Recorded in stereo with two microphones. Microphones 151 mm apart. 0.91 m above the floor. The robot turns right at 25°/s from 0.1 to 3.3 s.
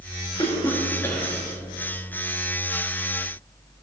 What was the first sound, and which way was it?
A cough, 30° left (ahead or behind).